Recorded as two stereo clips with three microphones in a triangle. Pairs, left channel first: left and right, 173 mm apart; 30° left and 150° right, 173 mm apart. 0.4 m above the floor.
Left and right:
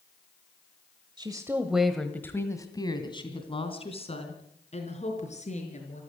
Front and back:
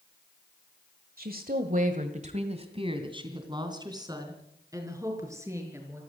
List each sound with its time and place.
1.2 s a woman speaking: 150° right, 1.4 m; by 6.0 s 135° left, 5.5 m